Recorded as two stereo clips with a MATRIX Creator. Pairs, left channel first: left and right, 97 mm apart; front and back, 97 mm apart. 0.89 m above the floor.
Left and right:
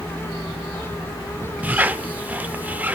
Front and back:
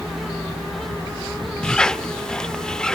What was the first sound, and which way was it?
A squeak, 65° right.